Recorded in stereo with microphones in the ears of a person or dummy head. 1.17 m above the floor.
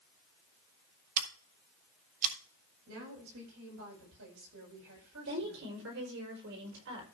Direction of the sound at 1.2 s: 45° right (ahead or behind).